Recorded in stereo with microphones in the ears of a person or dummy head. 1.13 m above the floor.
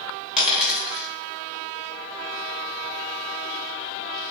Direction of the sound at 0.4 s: Centre (ahead or behind).